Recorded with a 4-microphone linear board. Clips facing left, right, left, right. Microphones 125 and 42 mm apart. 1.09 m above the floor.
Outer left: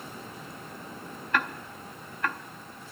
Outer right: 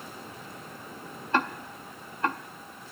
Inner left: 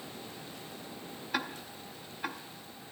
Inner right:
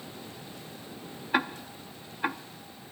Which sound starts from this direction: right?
Ticking, at 1.3 s.